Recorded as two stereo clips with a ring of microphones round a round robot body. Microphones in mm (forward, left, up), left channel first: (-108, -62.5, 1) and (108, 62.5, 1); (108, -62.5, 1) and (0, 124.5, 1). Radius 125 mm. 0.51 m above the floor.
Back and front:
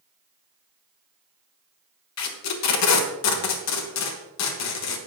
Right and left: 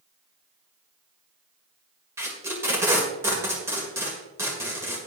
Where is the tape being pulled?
160° right, 1.5 m.